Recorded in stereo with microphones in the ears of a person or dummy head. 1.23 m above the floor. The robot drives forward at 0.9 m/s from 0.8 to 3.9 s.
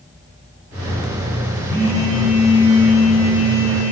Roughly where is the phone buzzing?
Right.